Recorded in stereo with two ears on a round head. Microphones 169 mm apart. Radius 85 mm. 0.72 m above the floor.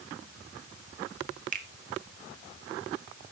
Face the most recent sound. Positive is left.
turn(degrees=-45)  # may be behind; listen again after turning